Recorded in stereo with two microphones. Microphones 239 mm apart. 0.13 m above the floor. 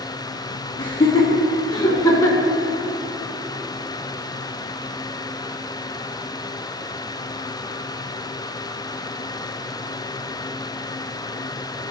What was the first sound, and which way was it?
Laughter, 20° left (ahead or behind).